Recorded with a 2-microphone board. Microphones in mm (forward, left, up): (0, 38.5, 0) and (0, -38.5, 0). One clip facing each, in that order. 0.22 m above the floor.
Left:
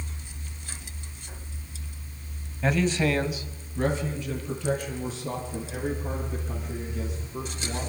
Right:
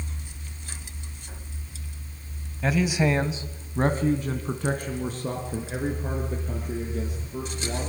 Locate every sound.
2.6 s a man speaking: centre (ahead or behind), 1.4 m; by 7.9 s 45° right (ahead or behind), 7 m